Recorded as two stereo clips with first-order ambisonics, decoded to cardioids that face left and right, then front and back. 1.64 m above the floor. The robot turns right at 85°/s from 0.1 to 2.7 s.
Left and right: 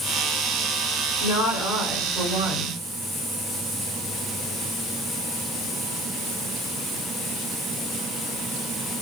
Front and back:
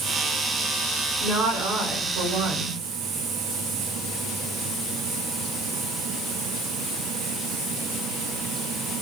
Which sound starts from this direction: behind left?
A woman speaking, at 1.2 s.